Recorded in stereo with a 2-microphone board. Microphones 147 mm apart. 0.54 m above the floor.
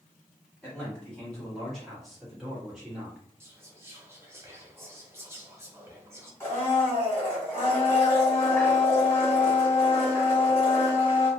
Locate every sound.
0.6 s a man speaking: 10° left (ahead or behind), 1.3 m; by 3.2 s 5° right (ahead or behind), 1.5 m
3.4 s whispering: 15° right (ahead or behind), 1.0 m
6.4 s a blender: 15° left (ahead or behind), 1.4 m